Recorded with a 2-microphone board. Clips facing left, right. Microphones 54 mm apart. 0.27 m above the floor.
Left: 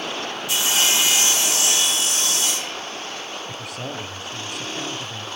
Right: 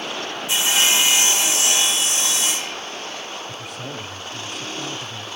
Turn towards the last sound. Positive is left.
turn(degrees=75)  # may be behind; listen again after turning